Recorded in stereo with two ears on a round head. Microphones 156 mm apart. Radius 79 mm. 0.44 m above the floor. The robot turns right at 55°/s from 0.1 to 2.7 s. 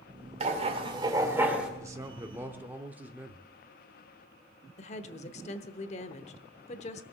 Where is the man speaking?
20° right (ahead or behind), 0.7 m; by 3.5 s 10° right (ahead or behind), 0.7 m.